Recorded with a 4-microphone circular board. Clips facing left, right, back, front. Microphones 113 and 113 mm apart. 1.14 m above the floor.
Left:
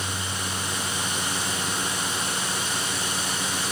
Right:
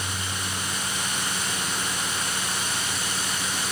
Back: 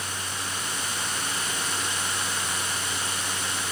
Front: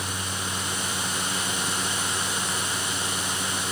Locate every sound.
Only background noise.